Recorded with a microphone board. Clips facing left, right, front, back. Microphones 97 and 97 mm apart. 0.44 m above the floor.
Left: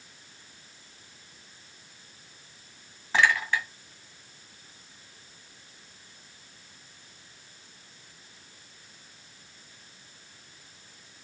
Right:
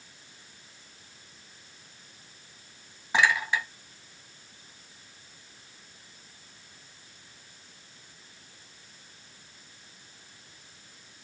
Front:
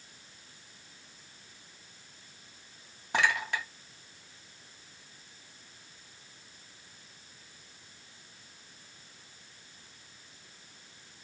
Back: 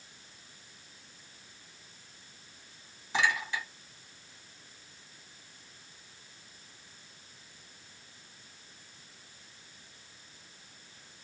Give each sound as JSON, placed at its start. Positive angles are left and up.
{"t": 3.1, "sound": "a clink", "azimuth_deg": -15, "distance_m": 0.9}